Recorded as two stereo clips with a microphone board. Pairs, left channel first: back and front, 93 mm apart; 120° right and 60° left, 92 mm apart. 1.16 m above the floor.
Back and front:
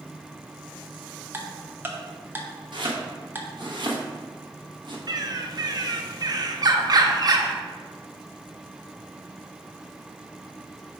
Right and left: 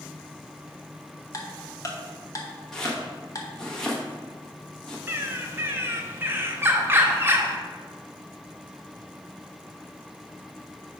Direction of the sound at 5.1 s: 5° left.